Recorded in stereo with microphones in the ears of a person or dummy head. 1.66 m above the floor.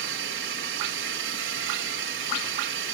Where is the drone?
65° right (ahead or behind).